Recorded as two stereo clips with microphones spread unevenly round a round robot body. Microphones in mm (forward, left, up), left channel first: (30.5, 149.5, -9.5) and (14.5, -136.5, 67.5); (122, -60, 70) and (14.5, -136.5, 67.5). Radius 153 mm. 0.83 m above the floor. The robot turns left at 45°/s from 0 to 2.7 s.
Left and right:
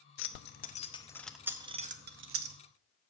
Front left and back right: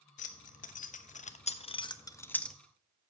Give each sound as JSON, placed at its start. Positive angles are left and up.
{"t": 0.2, "sound": "keys jangling", "azimuth_deg": 55, "distance_m": 0.7}